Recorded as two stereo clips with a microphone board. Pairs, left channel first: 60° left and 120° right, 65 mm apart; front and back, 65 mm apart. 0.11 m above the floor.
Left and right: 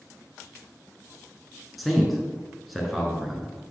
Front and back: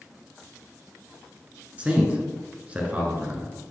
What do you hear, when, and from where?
1.8 s a man speaking: 150° left, 1.2 m